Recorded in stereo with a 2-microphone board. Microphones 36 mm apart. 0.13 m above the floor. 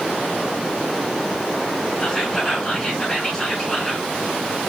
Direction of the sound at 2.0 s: 15° left (ahead or behind).